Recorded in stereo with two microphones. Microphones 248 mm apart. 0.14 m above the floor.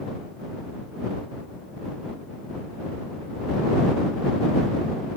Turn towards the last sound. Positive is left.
No sound to turn to.